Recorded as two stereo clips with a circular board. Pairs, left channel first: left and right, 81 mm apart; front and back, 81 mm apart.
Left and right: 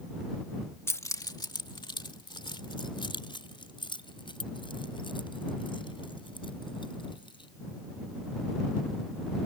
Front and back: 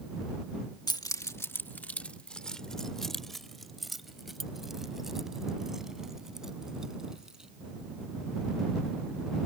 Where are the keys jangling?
30° left; by 7.5 s 100° left.